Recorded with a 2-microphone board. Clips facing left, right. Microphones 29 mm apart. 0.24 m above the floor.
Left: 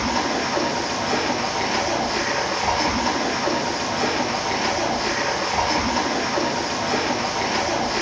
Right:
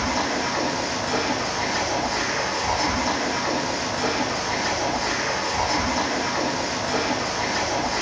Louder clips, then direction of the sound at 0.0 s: Left 2 dB; 65° left (ahead or behind).